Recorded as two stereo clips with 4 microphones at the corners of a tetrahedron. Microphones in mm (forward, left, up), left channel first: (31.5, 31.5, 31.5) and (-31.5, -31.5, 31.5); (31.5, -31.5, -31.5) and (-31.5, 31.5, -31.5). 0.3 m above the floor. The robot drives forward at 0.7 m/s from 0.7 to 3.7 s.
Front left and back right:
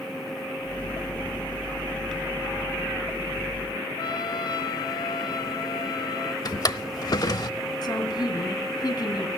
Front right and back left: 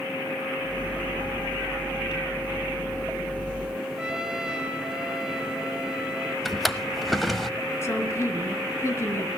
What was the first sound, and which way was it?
A trumpet, 55° left.